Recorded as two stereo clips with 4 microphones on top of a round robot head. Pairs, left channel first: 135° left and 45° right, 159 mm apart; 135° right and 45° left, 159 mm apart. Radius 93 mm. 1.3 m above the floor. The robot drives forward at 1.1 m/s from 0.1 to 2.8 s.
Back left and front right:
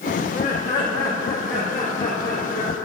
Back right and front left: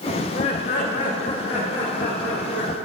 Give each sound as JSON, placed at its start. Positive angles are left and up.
{"t": 0.2, "sound": "laughter", "azimuth_deg": 170, "distance_m": 0.5}